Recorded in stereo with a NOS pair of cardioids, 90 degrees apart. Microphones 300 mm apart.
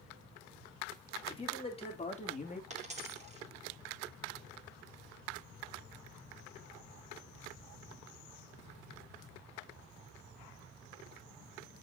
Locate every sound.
1.3 s a man speaking: 15° left, 3.5 m; by 2.6 s 25° left, 2.5 m
2.7 s a dropped coin: 25° right, 3 m